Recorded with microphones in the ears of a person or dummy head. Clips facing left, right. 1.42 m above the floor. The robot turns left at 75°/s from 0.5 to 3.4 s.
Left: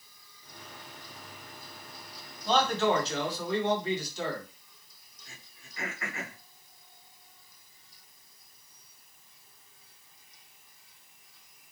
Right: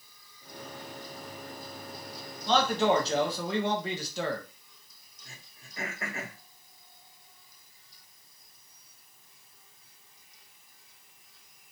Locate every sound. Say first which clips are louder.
2.5 s a man speaking: right 1 dB; 10° left, 1.0 m; by 4.5 s 65° right, 1.0 m
5.2 s throat clearing: right 1 dB; 35° right (ahead or behind), 1.1 m